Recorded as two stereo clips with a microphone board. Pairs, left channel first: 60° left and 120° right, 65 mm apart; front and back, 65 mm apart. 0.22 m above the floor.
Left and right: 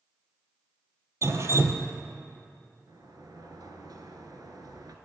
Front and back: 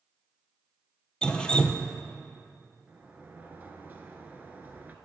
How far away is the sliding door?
About 1.3 m.